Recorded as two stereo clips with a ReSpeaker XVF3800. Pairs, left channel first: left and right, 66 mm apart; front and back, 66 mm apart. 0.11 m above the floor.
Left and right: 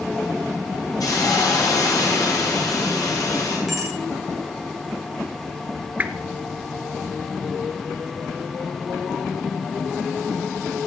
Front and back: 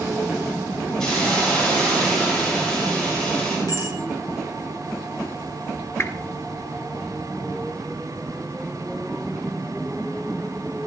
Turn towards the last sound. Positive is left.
turn(degrees=-30)